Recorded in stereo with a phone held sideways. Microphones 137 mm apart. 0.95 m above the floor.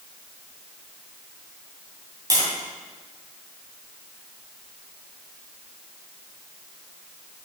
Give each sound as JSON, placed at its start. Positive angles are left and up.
{"t": 2.3, "sound": "tapping", "side_deg": -30, "distance_m": 2.5}